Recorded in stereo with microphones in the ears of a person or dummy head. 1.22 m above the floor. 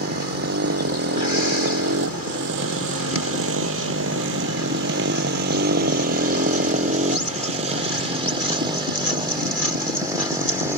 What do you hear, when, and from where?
0.0 s a motorcycle: 60° right (ahead or behind); by 10.8 s 15° right (ahead or behind)